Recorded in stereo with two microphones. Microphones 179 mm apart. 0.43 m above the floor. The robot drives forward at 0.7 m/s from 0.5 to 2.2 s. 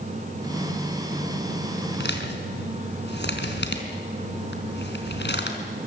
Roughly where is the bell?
I don't hear a bell.